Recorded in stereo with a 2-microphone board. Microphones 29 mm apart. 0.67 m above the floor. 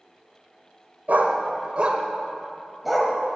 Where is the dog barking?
70° right (ahead or behind), 1.2 m; by 3.1 s centre (ahead or behind), 1.8 m.